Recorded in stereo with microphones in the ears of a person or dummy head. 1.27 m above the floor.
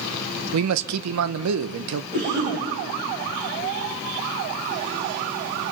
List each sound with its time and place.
0.5 s a man speaking: 90° right, 0.7 m
2.1 s a cough: 50° right (ahead or behind), 6 m